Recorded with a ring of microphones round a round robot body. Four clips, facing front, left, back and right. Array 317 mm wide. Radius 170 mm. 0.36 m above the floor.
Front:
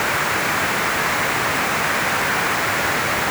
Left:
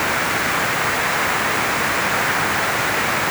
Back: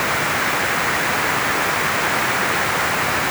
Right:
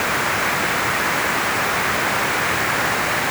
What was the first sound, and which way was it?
Only background noise.